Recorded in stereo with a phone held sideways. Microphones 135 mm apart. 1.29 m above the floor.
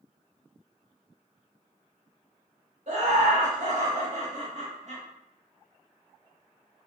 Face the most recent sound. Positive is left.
turn(degrees=-60)  # may be behind; listen again after turning